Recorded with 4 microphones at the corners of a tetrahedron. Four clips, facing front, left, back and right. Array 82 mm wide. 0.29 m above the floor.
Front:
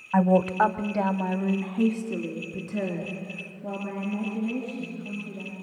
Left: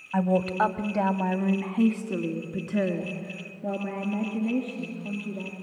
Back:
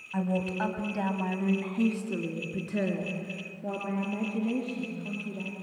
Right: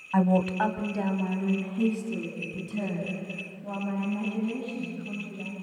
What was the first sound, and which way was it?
A woman speaking, 10° right.